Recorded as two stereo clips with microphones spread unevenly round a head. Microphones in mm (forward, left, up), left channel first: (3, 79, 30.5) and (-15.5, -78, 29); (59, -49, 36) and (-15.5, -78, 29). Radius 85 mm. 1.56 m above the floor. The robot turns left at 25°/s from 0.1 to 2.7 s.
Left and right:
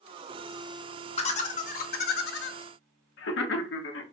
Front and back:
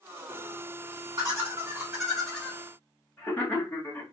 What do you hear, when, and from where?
1.2 s laughter: 135° left, 0.7 m; by 4.0 s 100° left, 0.7 m